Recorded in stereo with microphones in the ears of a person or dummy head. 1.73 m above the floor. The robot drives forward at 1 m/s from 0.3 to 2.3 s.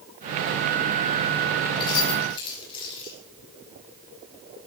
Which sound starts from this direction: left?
Keys jangling, at 1.8 s.